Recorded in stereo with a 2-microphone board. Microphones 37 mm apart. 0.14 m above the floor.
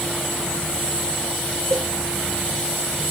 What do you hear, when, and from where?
1.7 s a cowbell: 55° right (ahead or behind)